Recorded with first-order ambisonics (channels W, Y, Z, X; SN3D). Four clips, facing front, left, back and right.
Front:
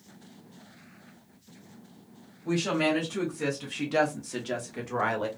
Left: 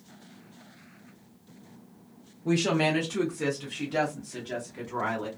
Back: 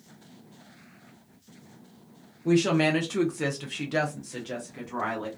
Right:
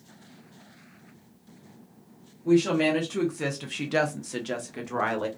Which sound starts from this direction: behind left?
A woman speaking, at 2.5 s.